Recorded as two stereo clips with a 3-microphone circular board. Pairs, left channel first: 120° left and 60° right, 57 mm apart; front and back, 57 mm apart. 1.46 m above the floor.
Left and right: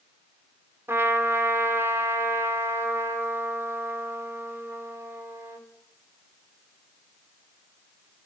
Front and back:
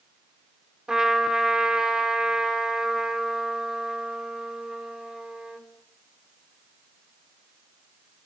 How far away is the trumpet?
About 4.5 m.